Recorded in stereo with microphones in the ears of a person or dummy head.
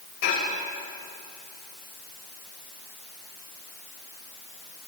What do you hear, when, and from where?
0.2 s dishes clattering: 55° left (ahead or behind), 6 m